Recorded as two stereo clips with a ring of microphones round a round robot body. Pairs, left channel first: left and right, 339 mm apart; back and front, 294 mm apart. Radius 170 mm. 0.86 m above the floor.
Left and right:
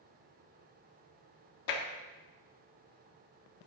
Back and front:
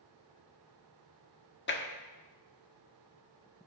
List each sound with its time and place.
1.7 s tapping: 125° left, 1.6 m